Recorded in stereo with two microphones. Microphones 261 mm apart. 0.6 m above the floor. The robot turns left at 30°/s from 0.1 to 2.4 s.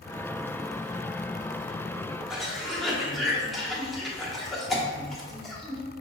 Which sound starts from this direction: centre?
A cough, at 2.3 s.